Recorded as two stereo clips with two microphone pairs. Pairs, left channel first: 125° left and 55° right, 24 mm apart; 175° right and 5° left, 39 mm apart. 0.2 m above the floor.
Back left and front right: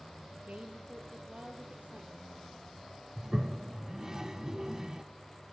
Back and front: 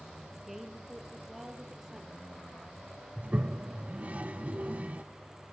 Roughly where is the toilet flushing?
Ahead.